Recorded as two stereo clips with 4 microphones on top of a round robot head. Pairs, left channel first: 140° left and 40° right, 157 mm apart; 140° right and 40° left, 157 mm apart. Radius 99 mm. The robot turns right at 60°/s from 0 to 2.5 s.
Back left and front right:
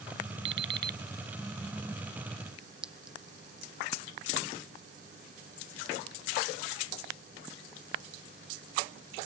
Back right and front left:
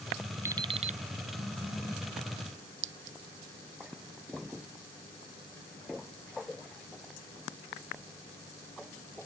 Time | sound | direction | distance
0.5 | an alarm clock | 35° right | ?
2.8 | a clink | 45° left | ?